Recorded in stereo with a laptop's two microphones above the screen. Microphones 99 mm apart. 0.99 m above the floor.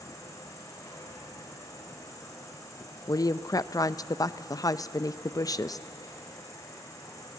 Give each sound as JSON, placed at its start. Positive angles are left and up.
{"t": 0.0, "sound": "an insect", "side_deg": 35, "distance_m": 4.0}
{"t": 3.1, "sound": "a woman speaking", "side_deg": 35, "distance_m": 0.5}